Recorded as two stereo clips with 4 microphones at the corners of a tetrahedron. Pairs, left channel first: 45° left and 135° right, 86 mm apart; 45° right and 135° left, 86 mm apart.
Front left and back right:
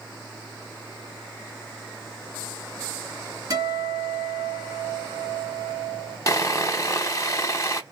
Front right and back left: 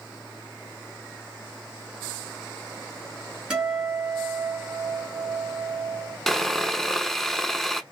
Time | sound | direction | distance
3.5 | a guitar | 145° right | 1.5 m
6.3 | sawing | 40° left | 0.5 m